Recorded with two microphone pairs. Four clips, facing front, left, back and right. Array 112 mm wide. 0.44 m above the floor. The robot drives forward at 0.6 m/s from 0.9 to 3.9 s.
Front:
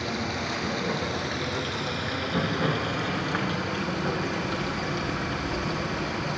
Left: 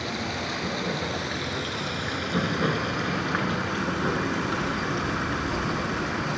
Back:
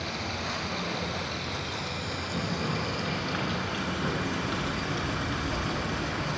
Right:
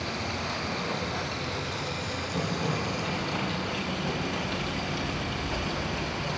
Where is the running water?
45° left, 2.5 m; by 6.4 s 90° left, 1.9 m.